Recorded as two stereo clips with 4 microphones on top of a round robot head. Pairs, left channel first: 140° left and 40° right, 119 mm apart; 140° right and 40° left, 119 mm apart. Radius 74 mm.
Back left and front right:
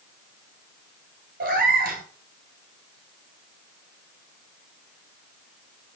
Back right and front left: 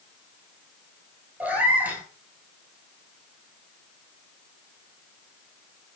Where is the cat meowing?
35° right, 1.2 m.